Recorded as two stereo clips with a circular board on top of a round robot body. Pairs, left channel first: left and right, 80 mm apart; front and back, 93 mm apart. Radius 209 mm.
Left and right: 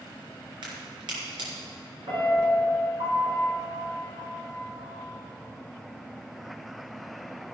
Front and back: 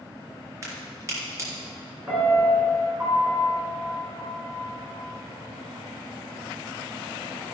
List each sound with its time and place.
0.6 s a crack: 120° right, 3 m
2.1 s a piano: 105° right, 3.5 m